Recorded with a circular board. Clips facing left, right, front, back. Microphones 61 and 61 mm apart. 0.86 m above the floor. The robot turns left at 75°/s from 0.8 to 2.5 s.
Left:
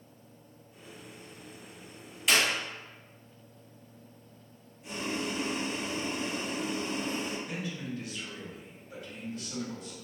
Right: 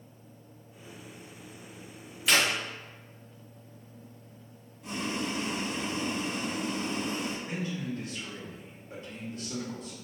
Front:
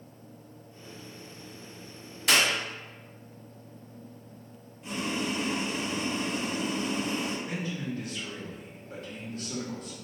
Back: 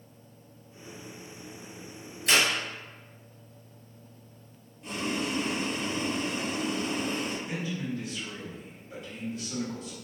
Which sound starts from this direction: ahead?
A clap, at 2.3 s.